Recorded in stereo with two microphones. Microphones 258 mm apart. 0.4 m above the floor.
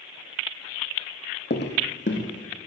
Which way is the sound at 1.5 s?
45° left (ahead or behind).